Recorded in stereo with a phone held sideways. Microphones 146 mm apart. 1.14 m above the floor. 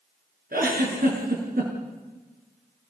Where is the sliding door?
I don't hear a sliding door.